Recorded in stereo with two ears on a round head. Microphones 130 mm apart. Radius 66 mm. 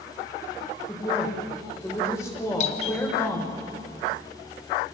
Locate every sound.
0.9 s a woman speaking: 20° left (ahead or behind), 5 m
2.6 s a doorbell: 50° left (ahead or behind), 1.1 m